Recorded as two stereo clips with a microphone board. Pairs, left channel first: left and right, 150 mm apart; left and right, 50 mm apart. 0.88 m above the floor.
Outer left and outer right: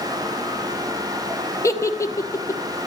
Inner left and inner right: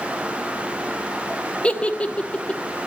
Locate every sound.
1.6 s a giggle: 20° left (ahead or behind), 0.9 m